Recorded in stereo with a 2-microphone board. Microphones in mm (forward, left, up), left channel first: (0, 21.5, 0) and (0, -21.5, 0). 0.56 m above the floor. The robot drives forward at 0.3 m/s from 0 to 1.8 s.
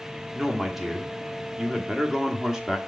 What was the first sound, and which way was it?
A man speaking, 10° right (ahead or behind).